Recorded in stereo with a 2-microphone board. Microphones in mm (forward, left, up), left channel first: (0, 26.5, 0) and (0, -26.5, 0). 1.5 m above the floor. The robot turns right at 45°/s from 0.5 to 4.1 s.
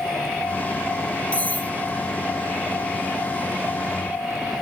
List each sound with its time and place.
1.3 s cutlery clinking: 20° left (ahead or behind), 1.0 m; by 1.7 s 35° left (ahead or behind), 1.0 m